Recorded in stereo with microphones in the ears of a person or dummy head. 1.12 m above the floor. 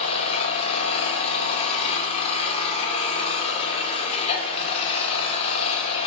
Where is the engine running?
40° left (ahead or behind), 0.7 m.